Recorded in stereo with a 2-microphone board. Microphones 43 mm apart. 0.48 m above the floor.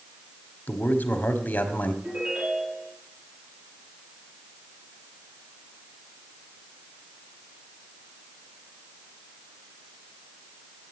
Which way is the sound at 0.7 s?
50° left (ahead or behind).